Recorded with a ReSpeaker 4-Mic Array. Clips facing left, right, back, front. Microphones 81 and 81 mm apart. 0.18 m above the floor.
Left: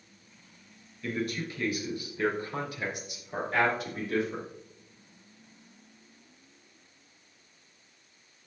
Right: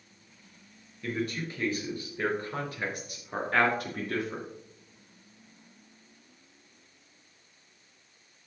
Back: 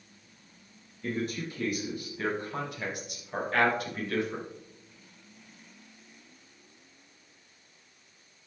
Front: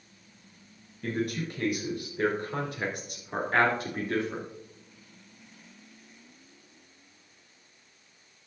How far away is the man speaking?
About 3 m.